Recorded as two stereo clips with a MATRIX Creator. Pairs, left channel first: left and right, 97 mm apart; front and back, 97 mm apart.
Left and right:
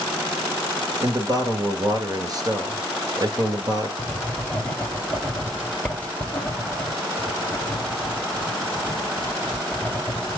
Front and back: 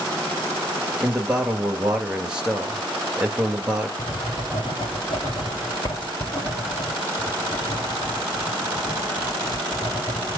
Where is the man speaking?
105° right, 1.5 m.